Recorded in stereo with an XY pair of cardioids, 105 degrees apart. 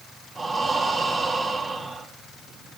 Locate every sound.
0.3 s breathing: 30° right, 3.5 m